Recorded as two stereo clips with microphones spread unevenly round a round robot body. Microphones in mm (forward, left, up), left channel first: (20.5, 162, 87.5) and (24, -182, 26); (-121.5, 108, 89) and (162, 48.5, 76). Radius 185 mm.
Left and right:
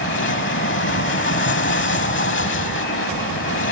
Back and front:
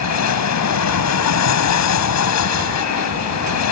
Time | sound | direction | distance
0.0 | an aircraft | 150° left | ?